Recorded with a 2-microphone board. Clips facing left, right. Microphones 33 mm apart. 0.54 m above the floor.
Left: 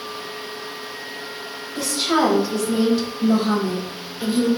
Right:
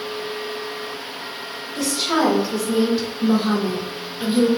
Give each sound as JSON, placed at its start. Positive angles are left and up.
{"t": 1.8, "sound": "a woman speaking", "side_deg": 5, "distance_m": 2.0}